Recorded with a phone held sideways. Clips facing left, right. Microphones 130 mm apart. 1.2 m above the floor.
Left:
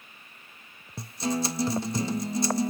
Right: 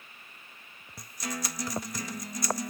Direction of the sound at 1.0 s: 25° left (ahead or behind).